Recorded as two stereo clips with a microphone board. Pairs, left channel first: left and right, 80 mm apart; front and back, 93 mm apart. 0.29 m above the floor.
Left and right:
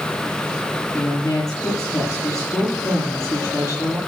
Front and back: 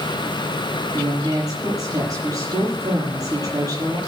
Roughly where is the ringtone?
No ringtone in this recording.